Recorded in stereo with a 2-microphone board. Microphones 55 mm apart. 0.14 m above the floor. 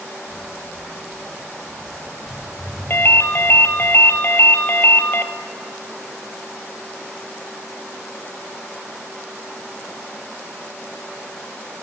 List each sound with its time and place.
0.3 s footsteps: 30° right (ahead or behind), 4.5 m; by 3.9 s 5° right (ahead or behind), 6.5 m
2.9 s a ringtone: 45° left (ahead or behind), 1.1 m